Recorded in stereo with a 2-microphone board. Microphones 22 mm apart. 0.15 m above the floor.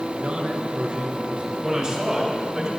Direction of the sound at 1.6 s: 30° right (ahead or behind).